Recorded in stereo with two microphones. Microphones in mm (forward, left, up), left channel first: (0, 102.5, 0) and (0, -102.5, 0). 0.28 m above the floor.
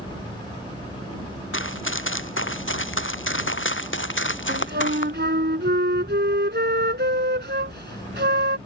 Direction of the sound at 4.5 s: 60° right (ahead or behind).